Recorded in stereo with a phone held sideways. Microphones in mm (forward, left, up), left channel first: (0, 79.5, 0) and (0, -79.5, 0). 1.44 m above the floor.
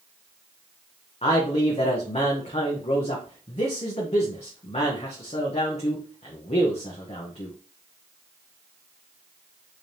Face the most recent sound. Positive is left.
turn(degrees=45)  # may be behind; listen again after turning